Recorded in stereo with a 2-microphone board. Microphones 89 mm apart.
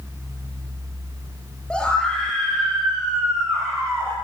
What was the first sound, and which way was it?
A scream, 10° left (ahead or behind).